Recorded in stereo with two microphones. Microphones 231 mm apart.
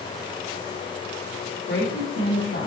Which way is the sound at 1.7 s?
65° left (ahead or behind).